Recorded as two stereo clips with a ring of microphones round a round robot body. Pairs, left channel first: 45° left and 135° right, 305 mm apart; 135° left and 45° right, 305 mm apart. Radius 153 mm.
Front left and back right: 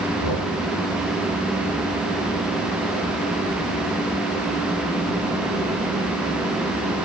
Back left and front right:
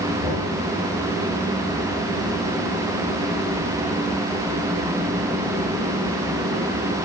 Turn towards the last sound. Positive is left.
turn(degrees=30)